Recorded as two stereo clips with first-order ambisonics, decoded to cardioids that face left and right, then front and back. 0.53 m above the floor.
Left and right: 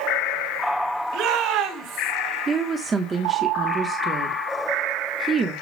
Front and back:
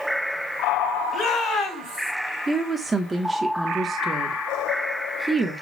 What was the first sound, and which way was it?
A shout, 60° right.